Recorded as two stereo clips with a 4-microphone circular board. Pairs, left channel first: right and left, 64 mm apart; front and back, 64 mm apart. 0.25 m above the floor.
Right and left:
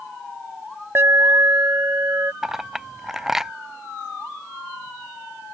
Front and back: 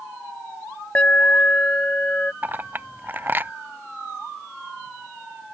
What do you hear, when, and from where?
0.9 s an alarm: 60° left
2.4 s a clink: 165° left